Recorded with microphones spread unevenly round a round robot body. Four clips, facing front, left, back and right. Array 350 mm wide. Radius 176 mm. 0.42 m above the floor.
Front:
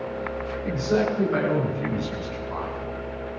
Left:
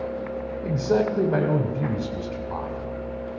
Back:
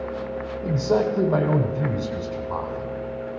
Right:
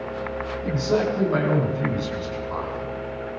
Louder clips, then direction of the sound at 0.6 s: Even, back 2 dB; 150° left.